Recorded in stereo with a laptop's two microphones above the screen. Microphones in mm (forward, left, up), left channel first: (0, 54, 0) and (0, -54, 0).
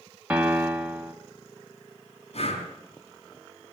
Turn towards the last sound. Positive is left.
turn(degrees=65)  # may be behind; listen again after turning